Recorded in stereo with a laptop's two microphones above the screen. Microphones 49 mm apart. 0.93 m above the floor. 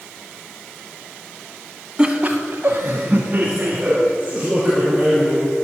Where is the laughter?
15° right (ahead or behind), 0.9 m; by 5.4 s 25° right (ahead or behind), 4.5 m.